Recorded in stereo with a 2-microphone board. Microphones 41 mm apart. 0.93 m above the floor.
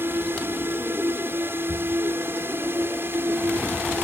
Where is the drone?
55° right (ahead or behind); by 4.0 s 60° right (ahead or behind).